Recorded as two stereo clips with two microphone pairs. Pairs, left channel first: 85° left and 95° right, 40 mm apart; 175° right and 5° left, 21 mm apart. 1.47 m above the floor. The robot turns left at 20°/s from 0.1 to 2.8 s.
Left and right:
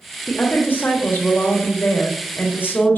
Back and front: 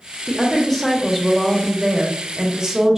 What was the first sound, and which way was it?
A woman speaking, 115° left.